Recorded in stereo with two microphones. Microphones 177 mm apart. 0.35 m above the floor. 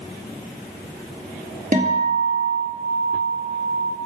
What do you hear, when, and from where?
1.7 s a guitar: 45° right (ahead or behind), 1.9 m